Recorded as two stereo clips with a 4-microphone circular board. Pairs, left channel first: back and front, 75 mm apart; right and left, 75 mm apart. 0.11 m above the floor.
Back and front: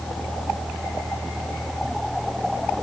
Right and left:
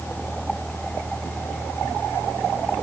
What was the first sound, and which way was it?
Only background noise.